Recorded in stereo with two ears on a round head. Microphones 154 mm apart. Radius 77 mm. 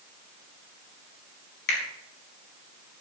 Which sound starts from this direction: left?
A finger snap, at 1.7 s.